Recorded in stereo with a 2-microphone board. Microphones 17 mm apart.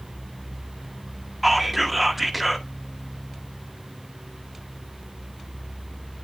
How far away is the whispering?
About 1.7 m.